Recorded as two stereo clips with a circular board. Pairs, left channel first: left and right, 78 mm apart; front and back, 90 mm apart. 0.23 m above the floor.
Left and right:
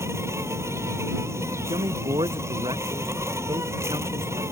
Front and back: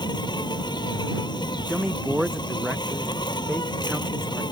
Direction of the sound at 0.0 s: 35° right.